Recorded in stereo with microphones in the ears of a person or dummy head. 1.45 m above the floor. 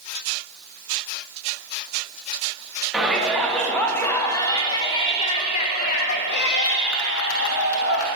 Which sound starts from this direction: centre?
A shout, at 2.9 s.